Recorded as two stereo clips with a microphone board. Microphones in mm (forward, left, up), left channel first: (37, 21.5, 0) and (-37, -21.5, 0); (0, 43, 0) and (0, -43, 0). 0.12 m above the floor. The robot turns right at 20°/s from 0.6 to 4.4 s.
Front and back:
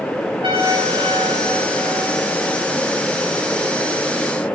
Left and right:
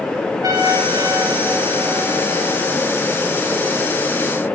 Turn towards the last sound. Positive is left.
turn(degrees=-55)